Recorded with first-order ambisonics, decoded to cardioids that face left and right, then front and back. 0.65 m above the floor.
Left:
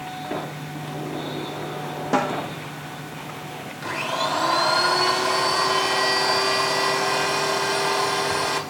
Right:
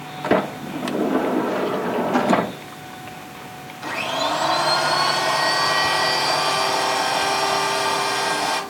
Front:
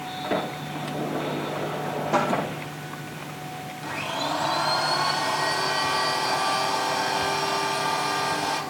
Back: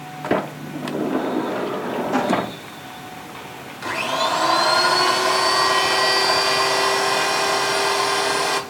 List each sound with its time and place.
0.2 s a sliding door: 125° right, 0.8 m
2.1 s a snare drum: 85° left, 8 m
3.8 s a blender: 160° left, 3 m